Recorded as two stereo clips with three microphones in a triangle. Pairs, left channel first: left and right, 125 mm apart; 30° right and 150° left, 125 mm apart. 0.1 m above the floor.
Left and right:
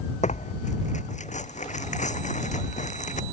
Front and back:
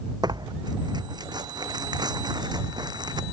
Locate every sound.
0.2 s tearing paper: 95° left